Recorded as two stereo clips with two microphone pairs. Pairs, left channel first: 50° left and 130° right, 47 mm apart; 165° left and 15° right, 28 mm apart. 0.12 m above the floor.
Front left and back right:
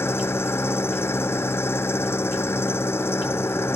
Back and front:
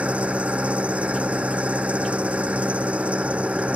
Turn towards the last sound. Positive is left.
turn(degrees=20)